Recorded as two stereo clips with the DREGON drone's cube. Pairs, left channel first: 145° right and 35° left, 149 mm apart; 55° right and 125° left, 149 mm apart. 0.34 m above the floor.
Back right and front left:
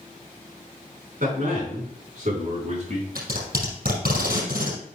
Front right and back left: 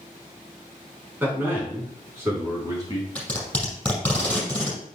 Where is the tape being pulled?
30° left, 4.5 m.